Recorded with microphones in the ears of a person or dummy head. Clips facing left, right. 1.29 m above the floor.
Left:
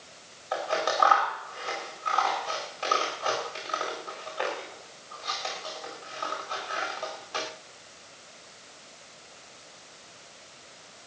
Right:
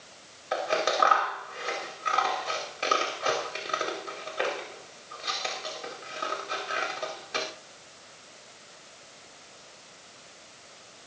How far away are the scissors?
About 4.5 m.